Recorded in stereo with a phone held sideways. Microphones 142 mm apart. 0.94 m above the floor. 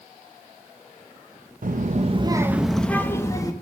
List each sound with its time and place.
1.6 s a child speaking: 65° right (ahead or behind), 0.7 m; by 3.5 s 25° left (ahead or behind), 1.2 m